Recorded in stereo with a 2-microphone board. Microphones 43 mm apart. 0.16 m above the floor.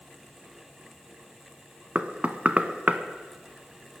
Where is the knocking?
35° right (ahead or behind), 0.9 m.